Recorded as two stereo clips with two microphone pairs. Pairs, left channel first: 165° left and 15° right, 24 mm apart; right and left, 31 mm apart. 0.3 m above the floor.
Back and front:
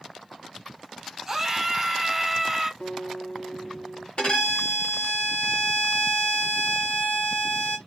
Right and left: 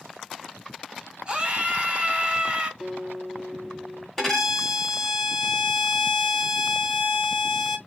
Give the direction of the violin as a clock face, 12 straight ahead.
6 o'clock.